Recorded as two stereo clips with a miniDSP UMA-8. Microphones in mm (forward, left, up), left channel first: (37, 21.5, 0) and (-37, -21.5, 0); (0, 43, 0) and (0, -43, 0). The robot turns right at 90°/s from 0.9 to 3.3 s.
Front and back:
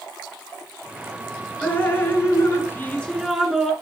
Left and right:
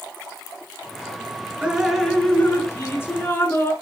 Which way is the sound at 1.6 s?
30° right.